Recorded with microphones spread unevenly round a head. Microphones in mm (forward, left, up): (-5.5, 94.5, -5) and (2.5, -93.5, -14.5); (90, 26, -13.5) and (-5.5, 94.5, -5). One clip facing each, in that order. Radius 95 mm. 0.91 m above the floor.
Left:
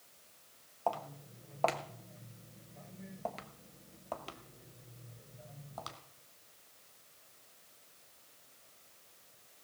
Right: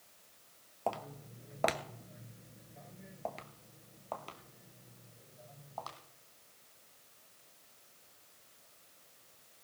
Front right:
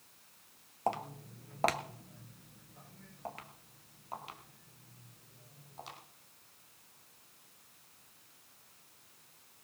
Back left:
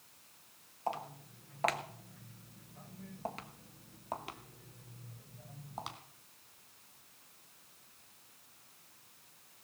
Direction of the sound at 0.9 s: 30° right.